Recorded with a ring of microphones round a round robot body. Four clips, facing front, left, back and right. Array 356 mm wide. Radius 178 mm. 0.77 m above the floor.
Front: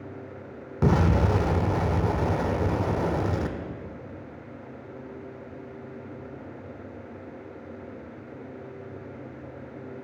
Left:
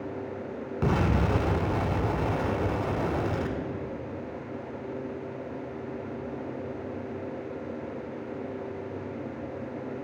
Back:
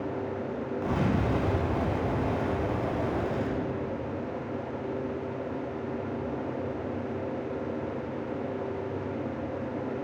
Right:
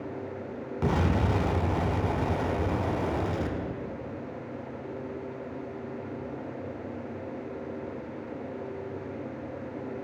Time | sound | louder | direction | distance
0.8 | an explosion | left 1 dB, front 6 dB | 15° left | 0.9 m